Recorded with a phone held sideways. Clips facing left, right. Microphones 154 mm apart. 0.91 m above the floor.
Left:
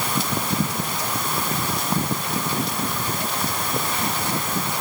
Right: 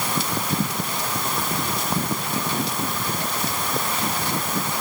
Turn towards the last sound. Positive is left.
No sound to turn to.